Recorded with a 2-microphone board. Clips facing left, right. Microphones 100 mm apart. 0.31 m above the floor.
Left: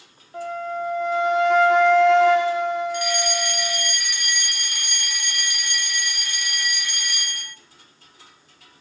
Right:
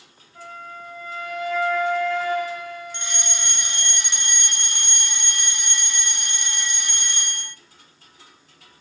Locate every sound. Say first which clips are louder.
0.3 s a flute: left 11 dB; 85° left, 5.5 m
2.9 s a fire alarm: left 11 dB; 25° right (ahead or behind), 2 m